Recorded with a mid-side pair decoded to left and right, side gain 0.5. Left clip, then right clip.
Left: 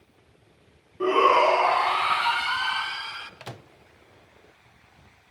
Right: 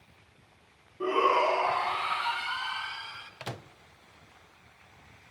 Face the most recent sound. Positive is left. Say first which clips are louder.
# right 1 dB
turn(degrees=-10)